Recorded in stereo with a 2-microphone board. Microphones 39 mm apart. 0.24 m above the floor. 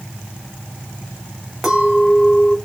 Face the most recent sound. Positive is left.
turn(degrees=-5)  # may be behind; listen again after turning